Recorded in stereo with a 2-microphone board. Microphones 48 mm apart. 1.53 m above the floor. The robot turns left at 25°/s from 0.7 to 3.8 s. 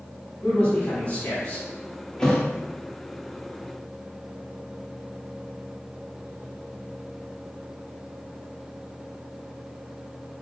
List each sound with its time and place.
0.4 s a man speaking: 25° left (ahead or behind), 1.5 m; by 1.6 s 50° left (ahead or behind), 1.5 m
2.2 s a thud: 15° left (ahead or behind), 0.9 m